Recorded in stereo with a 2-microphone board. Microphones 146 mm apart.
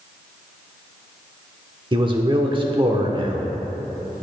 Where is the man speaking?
35° right (ahead or behind), 1.1 m.